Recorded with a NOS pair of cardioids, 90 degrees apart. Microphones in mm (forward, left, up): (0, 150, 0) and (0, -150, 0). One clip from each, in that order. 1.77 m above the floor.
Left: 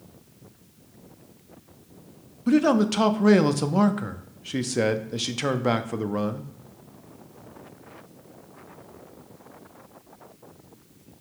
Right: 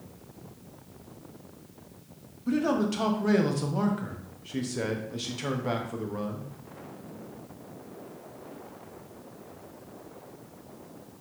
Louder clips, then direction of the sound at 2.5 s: Left 6 dB; 35° left.